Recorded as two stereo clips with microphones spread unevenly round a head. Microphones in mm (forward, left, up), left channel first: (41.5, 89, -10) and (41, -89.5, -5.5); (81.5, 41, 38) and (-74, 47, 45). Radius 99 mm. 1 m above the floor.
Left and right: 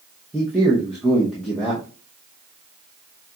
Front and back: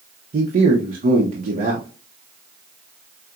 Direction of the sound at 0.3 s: 175° left.